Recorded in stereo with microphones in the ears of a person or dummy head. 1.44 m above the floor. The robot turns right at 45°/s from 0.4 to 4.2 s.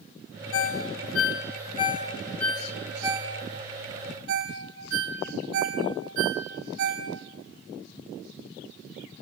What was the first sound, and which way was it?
A ringtone, 80° left.